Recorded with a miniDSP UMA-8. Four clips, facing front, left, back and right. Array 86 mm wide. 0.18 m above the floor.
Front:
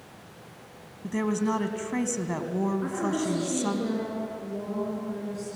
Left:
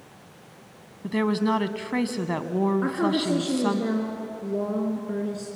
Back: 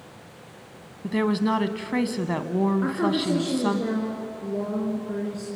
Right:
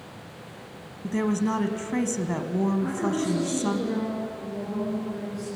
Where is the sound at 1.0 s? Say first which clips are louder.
Left 2 dB, back 4 dB; 140° left, 1.0 m.